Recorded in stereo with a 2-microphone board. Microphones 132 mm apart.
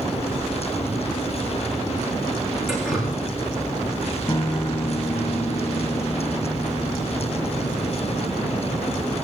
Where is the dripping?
5° right (ahead or behind), 9 m.